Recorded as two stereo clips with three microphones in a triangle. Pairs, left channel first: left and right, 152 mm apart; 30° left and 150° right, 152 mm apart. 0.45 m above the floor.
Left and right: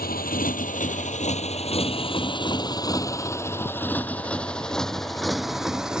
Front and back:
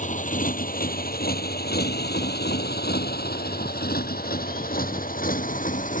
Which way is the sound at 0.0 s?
70° left.